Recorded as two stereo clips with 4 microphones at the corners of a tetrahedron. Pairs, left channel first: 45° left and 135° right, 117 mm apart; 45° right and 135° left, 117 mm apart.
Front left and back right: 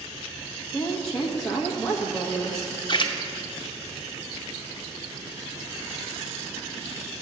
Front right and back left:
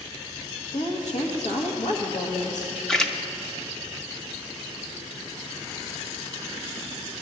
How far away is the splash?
About 0.7 m.